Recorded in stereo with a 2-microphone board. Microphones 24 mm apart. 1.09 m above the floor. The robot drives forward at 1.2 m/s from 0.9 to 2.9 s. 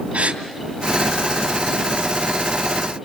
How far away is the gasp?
About 2.5 m.